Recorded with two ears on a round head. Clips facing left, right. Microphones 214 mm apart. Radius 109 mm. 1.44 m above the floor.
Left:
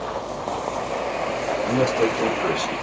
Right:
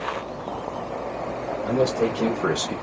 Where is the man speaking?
5° left (ahead or behind), 2 m; by 2.8 s 40° right (ahead or behind), 0.8 m.